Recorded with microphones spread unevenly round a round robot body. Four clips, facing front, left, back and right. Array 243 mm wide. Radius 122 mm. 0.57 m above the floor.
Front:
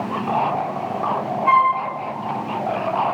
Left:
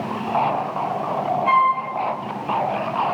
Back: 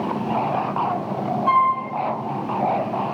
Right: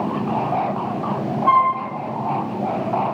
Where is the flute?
120° right, 1.2 m.